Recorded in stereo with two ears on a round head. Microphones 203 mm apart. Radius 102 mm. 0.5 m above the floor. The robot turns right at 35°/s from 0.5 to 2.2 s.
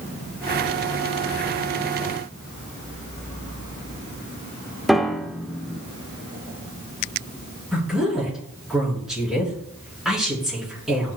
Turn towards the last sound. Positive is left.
turn(degrees=0)  # may be behind; listen again after turning